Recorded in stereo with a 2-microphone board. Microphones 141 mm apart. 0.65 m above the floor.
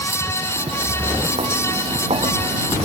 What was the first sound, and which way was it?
Footsteps, 50° right (ahead or behind).